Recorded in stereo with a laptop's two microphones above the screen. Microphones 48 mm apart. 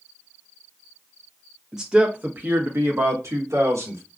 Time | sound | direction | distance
1.7 | a man speaking | 10° right (ahead or behind) | 0.7 m